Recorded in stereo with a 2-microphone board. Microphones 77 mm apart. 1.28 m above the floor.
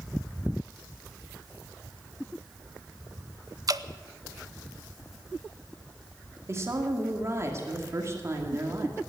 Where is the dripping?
50° right (ahead or behind), 0.5 m.